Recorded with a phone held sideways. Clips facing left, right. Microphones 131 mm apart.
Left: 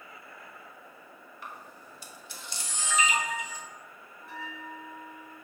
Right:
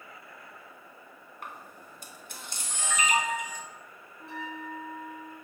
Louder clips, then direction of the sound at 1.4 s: Right 1 dB; 55° right (ahead or behind).